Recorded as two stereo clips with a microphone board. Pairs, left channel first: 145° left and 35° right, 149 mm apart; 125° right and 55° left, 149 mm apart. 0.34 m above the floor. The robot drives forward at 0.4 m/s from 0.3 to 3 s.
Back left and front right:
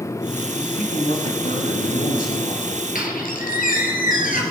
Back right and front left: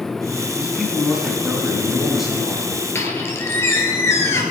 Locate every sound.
0.6 s a man speaking: 140° left, 3 m; by 2.9 s 150° left, 3.5 m
3.0 s a squeak: 165° left, 2.5 m